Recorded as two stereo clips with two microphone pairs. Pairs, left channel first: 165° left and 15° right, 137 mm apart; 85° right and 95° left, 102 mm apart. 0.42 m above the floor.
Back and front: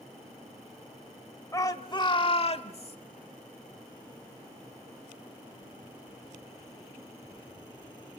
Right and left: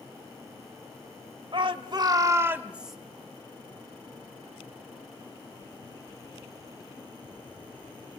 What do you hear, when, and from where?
1.5 s a shout: 100° left, 1.7 m; by 3.0 s straight behind, 1.5 m